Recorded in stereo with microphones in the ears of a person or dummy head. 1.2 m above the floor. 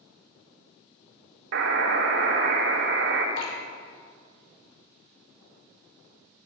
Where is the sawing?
I don't hear sawing.